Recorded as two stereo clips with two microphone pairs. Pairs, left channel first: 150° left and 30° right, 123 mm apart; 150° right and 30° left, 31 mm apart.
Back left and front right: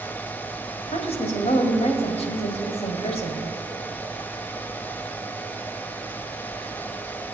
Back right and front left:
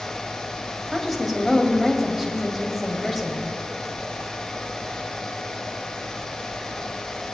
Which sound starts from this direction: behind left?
A woman speaking, at 0.9 s.